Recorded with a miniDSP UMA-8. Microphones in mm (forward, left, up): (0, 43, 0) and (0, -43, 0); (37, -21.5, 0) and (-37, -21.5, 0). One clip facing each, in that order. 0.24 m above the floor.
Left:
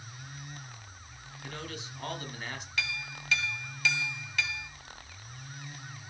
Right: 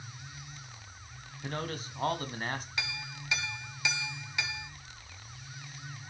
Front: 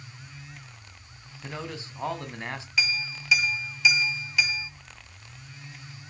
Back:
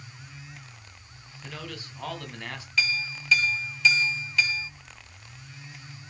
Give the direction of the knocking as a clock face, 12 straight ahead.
I don't hear knocking.